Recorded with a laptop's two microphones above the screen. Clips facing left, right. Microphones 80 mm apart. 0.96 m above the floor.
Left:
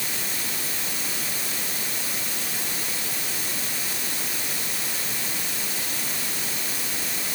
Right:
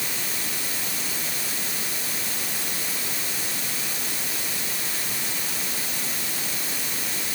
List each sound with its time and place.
Only background noise.